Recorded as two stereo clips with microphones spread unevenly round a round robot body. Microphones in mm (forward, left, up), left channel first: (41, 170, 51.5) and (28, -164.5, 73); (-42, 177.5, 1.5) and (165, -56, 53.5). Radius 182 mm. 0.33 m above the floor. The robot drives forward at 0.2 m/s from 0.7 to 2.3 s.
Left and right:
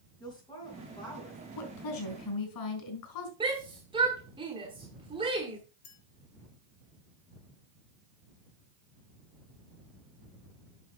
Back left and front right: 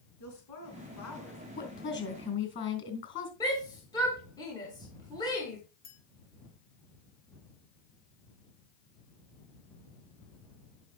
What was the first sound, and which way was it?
A woman speaking, 165° left.